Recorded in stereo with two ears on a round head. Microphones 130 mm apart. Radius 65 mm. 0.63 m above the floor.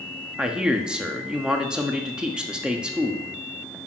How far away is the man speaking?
About 1.1 m.